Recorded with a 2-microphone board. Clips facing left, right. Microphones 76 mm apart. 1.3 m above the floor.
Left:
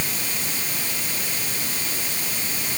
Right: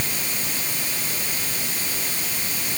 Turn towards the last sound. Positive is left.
No sound to turn to.